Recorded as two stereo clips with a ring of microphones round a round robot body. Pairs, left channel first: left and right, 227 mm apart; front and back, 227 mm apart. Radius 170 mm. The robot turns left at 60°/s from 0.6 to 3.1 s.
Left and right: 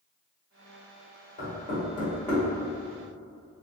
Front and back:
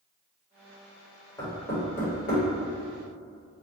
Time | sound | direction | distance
1.4 | knocking | 70° left | 1.3 m